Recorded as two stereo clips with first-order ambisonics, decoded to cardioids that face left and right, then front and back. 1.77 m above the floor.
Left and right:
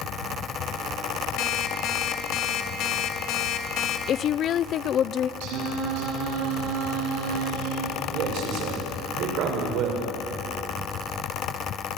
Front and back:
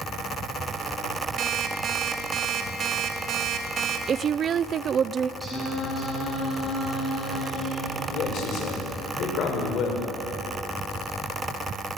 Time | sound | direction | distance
1.4 | an alarm clock | 125° left | 2.5 m
4.1 | a woman speaking | 130° left | 0.6 m
5.4 | singing | 85° right | 6.5 m
8.1 | a man speaking | 50° right | 7 m